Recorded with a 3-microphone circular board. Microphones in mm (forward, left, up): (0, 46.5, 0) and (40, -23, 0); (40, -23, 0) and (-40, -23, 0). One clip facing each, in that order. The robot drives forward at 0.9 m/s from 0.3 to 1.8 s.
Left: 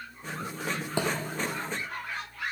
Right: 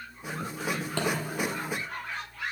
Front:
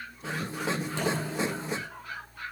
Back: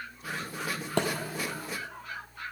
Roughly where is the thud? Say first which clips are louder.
Left 1 dB, back 3 dB; behind.